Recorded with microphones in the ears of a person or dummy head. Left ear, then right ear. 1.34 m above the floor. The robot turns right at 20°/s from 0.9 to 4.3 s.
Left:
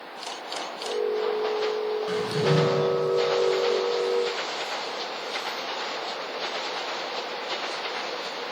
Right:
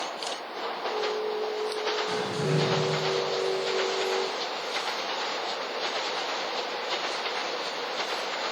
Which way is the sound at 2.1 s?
25° left (ahead or behind).